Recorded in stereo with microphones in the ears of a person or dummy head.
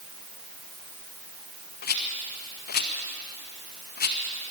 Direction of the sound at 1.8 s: 45° left (ahead or behind).